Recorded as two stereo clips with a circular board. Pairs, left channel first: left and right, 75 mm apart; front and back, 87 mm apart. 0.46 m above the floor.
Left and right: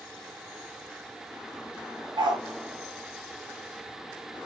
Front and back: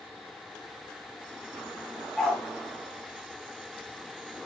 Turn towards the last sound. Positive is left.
turn(degrees=-90)